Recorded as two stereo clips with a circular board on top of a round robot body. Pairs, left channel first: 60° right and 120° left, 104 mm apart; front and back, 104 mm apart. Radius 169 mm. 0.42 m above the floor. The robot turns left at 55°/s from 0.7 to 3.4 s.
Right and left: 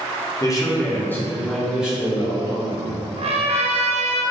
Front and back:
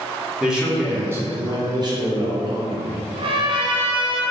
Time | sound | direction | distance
0.4 | a man speaking | 100° right | 1.4 m
3.2 | a trumpet | 150° left | 0.6 m